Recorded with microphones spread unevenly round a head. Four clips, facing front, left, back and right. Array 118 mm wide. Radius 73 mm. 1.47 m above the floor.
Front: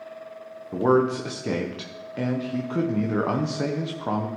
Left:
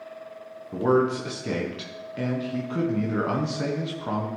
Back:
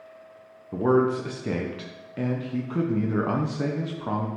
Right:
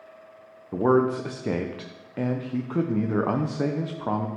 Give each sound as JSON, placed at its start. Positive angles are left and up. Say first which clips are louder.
{"t": 0.7, "sound": "a man speaking", "louder": "right 1 dB, front 1 dB", "azimuth_deg": -60, "distance_m": 0.7}